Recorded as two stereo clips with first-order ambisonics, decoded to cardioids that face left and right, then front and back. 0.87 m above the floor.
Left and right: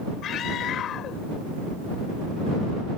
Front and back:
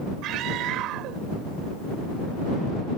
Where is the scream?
140° left.